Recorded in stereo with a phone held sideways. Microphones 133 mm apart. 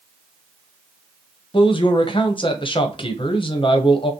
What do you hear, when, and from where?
1.5 s a man speaking: 40° left (ahead or behind), 0.9 m